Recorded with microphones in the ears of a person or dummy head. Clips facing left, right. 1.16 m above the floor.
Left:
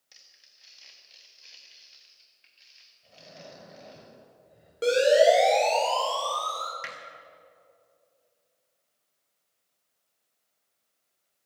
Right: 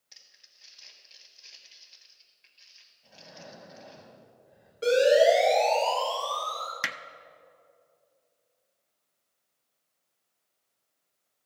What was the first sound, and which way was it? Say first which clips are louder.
Crumpling: even; 5° right (ahead or behind).